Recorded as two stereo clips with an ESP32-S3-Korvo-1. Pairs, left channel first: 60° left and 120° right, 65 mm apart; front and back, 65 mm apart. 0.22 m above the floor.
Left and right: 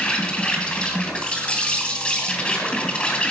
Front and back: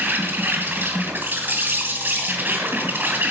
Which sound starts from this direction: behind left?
An insect, at 0.0 s.